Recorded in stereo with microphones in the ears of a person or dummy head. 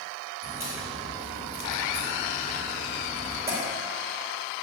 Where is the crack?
15° right (ahead or behind), 4.5 m.